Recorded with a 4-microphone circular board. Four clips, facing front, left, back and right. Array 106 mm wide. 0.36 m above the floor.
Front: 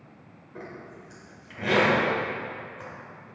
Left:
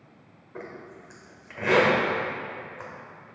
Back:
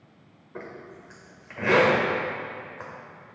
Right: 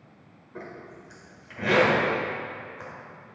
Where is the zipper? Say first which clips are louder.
Left 1 dB, back 1 dB; 155° left, 1.6 m.